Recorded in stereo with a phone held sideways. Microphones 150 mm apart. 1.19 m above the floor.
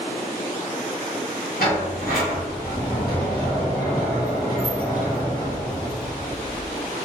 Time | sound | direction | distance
1.6 | a sliding door | 80° left | 1.1 m